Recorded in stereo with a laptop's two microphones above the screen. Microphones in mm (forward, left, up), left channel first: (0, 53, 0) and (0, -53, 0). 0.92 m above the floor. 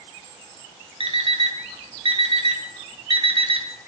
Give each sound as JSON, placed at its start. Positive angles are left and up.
{"t": 1.0, "sound": "an alarm clock", "side_deg": -55, "distance_m": 0.7}